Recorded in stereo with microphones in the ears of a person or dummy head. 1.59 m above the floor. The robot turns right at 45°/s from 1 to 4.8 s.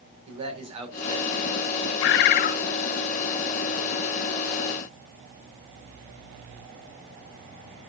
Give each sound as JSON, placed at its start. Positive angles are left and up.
{"t": 0.3, "sound": "a man speaking", "azimuth_deg": -150, "distance_m": 5.0}
{"t": 2.0, "sound": "a bird", "side_deg": 65, "distance_m": 1.1}